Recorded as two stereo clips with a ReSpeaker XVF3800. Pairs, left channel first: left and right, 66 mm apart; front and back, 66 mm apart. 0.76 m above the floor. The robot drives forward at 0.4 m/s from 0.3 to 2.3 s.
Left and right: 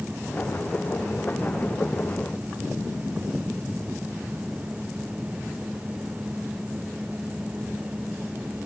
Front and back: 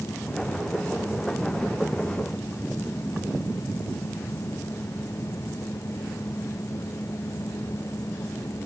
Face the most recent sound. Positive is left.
No sound to turn to.